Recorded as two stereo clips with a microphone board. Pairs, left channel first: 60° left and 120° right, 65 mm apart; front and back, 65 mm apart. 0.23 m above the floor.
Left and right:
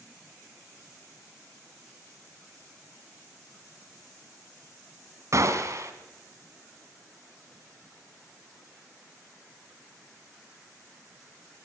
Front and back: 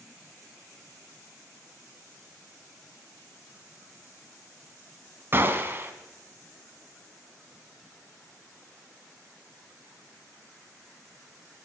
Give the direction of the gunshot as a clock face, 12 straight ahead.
4 o'clock.